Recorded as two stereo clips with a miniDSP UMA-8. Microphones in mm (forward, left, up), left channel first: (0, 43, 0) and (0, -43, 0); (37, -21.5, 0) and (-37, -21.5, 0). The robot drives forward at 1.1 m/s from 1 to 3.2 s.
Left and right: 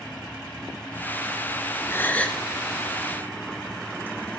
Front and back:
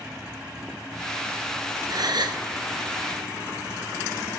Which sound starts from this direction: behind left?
A gasp, at 1.9 s.